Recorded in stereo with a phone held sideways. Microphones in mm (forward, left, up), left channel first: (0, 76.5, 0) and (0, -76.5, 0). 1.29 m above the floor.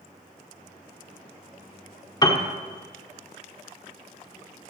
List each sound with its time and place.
2.2 s a piano: 25° left (ahead or behind), 0.9 m